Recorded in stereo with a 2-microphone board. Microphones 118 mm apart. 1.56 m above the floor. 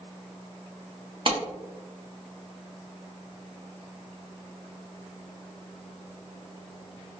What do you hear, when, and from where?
1.3 s a clap: 45° right (ahead or behind), 0.8 m